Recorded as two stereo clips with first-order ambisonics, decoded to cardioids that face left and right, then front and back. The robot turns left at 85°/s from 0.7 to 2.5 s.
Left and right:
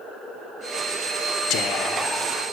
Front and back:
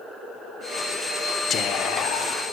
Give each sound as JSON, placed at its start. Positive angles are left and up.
{"t": 1.5, "sound": "whispering", "azimuth_deg": 60, "distance_m": 0.5}